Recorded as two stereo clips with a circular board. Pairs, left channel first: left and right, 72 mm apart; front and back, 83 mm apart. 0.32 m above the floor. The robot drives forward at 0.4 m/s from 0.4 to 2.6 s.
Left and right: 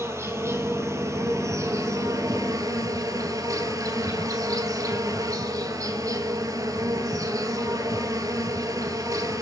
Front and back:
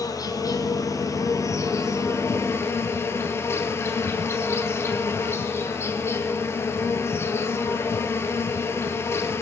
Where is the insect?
40° right, 2.5 m; by 9.4 s 55° right, 2 m.